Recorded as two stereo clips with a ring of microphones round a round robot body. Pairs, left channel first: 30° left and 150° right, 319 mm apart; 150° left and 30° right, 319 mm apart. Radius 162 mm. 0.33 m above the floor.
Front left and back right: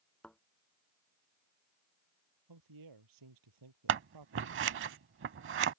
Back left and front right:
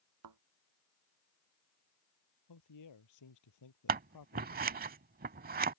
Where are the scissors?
95° right.